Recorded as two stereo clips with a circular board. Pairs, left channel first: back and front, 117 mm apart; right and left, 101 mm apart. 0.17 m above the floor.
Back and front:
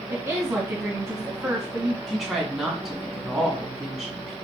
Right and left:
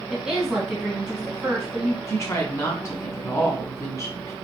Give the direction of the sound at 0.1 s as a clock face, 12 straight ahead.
12 o'clock.